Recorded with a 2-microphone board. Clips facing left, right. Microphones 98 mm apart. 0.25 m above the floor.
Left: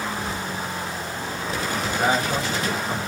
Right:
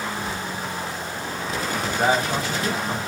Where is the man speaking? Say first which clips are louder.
Right 1 dB; 30° right (ahead or behind), 1.5 m.